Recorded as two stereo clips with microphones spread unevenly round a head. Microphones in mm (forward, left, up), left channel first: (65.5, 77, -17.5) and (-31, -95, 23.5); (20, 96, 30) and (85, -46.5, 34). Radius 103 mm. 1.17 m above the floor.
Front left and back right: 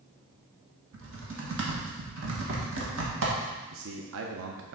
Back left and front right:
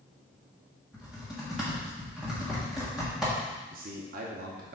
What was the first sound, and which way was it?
Typing on a keyboard, 155° right.